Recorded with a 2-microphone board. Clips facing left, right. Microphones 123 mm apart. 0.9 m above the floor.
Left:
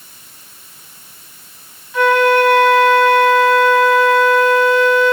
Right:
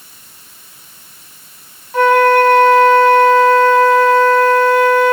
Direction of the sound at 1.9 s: 50° right (ahead or behind).